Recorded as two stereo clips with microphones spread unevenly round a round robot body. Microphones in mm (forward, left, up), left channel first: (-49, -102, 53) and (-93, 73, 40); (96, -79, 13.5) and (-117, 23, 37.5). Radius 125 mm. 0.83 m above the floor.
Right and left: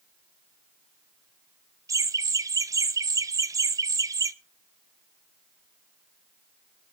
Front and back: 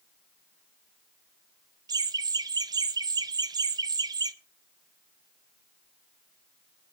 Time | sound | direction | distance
1.9 | laughter | 90° left | 0.6 m